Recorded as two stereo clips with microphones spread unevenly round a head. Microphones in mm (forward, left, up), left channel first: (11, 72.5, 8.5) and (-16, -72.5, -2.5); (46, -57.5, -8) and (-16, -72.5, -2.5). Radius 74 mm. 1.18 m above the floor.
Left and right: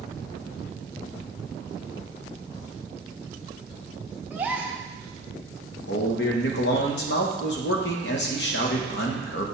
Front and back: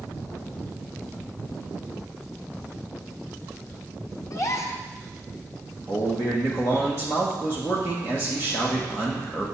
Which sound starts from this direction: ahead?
A gasp, at 4.3 s.